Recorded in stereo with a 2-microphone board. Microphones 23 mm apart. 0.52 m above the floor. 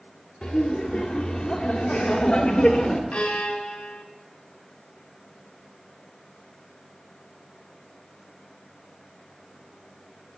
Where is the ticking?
No ticking in this recording.